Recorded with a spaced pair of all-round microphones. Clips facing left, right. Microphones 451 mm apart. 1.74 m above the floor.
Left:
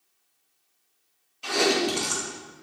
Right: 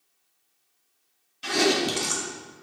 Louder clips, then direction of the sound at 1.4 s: Even; 35° right (ahead or behind).